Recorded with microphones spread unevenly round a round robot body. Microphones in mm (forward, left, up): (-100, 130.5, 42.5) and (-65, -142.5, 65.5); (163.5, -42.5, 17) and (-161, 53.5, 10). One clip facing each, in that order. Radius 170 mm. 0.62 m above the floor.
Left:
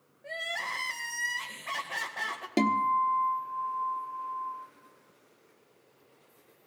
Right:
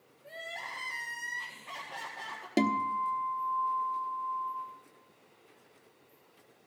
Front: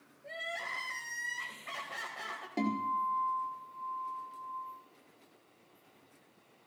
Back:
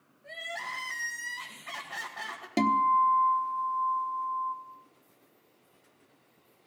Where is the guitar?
Straight behind, 1.0 m.